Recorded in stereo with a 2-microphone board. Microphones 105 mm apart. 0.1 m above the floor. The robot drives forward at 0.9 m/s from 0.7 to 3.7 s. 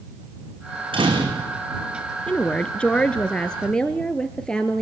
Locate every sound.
0.9 s a door slam: 60° right (ahead or behind), 5 m; by 1.6 s 50° right (ahead or behind), 5 m
2.3 s a woman speaking: 10° left (ahead or behind), 1.1 m